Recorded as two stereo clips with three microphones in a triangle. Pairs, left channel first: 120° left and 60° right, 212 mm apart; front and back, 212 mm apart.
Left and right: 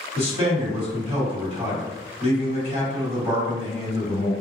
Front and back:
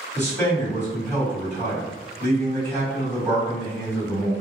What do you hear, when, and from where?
0.1 s a man speaking: 70° right, 1.7 m